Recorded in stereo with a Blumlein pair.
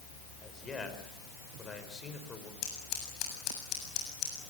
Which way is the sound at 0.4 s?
15° left.